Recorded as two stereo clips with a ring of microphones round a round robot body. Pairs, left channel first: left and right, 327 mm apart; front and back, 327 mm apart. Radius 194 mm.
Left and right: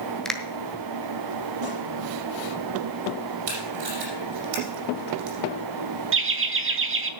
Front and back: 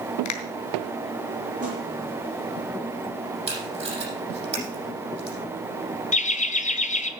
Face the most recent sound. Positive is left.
turn(degrees=-60)